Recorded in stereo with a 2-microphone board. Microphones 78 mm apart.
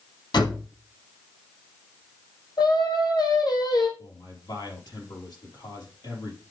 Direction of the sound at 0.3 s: 65° left (ahead or behind).